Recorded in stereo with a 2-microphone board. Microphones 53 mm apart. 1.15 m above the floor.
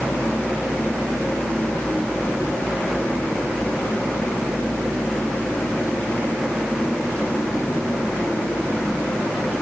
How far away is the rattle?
I don't hear a rattle.